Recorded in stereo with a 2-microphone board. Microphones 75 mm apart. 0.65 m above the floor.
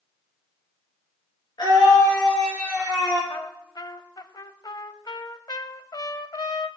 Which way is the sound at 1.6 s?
65° left (ahead or behind).